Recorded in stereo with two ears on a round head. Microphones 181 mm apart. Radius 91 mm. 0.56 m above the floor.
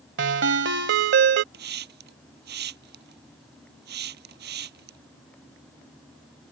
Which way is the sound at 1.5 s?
55° right (ahead or behind).